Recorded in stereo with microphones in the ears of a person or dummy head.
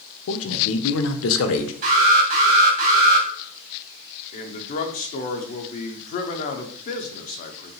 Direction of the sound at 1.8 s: 45° right (ahead or behind).